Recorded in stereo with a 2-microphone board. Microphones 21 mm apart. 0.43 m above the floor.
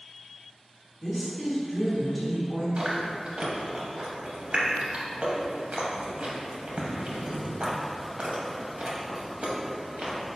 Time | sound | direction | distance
1.0 | a woman speaking | 5° left (ahead or behind) | 0.7 m
2.8 | chewing | 85° right | 0.6 m